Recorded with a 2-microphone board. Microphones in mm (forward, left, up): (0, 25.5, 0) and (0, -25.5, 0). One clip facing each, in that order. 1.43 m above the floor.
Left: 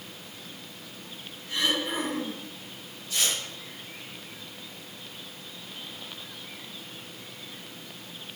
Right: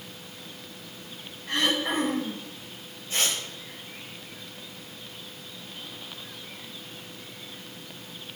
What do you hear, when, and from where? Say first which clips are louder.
1.5 s throat clearing: right 2 dB; 80° right, 7.5 m
3.1 s tearing paper: right 1 dB; 40° right (ahead or behind), 7 m